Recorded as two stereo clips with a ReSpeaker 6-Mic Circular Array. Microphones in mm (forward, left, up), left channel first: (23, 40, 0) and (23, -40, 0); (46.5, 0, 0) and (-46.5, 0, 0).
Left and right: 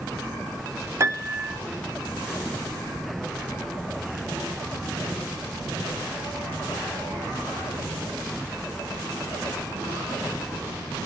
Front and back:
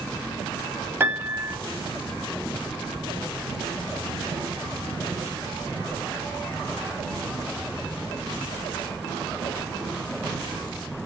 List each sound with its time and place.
1.0 s a piano: 125° right, 1.7 m